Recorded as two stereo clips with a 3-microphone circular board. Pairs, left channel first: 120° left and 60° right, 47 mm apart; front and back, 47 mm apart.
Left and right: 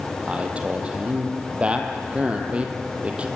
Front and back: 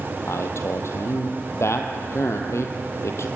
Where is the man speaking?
5° left, 3 m.